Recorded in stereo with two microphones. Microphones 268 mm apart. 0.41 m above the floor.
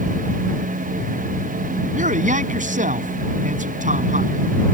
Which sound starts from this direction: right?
A man speaking, at 1.9 s.